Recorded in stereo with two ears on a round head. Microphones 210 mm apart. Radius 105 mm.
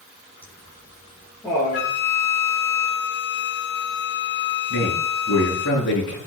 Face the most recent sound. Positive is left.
turn(degrees=55)  # may be behind; listen again after turning